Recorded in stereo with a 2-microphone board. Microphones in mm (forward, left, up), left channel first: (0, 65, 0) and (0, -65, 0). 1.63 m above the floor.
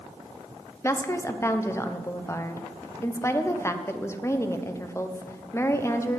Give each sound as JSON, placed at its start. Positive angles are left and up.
{"t": 0.8, "sound": "a woman speaking", "side_deg": 20, "distance_m": 0.8}